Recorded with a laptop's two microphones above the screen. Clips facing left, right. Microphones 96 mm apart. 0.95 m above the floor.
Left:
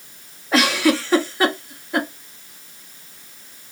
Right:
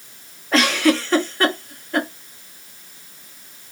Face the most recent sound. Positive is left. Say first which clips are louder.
# even
turn(degrees=5)  # may be behind; listen again after turning